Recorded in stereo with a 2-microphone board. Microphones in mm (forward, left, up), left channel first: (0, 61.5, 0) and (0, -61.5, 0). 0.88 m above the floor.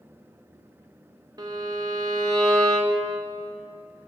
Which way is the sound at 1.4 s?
30° right (ahead or behind).